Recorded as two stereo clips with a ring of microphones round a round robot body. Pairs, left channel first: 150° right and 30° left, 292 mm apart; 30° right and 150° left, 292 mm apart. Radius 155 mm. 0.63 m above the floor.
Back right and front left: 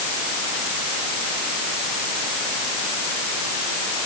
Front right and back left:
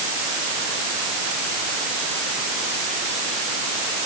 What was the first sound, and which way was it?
Only background noise.